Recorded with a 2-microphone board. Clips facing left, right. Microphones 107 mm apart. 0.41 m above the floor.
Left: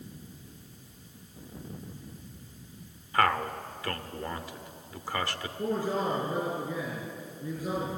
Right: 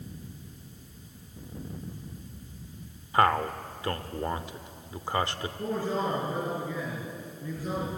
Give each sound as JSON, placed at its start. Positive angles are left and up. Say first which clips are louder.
{"t": 3.1, "sound": "a man speaking", "louder": "right 3 dB", "side_deg": -25, "distance_m": 1.1}
{"t": 5.6, "sound": "a man speaking", "louder": "left 1 dB", "side_deg": 15, "distance_m": 7.0}